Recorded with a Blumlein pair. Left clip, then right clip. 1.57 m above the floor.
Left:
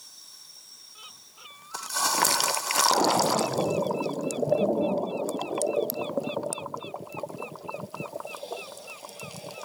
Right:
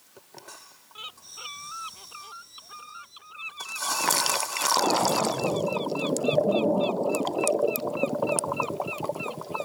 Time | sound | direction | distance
0.9 | a bird | 20° right | ?